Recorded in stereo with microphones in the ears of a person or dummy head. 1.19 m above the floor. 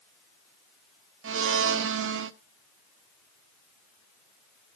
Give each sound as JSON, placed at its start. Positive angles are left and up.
{"t": 1.2, "sound": "a blender", "side_deg": -65, "distance_m": 0.5}